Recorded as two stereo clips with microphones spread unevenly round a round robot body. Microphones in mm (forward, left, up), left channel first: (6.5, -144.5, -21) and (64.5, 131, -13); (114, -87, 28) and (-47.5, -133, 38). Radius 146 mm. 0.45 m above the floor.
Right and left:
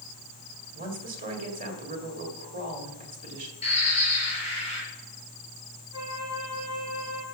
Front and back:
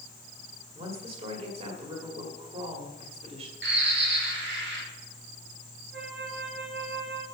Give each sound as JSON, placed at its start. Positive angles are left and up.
{"t": 0.8, "sound": "a woman speaking", "azimuth_deg": 140, "distance_m": 1.9}
{"t": 3.6, "sound": "a bird", "azimuth_deg": -170, "distance_m": 6.5}
{"t": 5.9, "sound": "a flute", "azimuth_deg": 155, "distance_m": 4.0}